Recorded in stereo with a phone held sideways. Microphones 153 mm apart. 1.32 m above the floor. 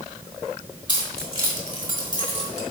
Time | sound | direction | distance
0.9 | keys jangling | 30° right (ahead or behind) | 3 m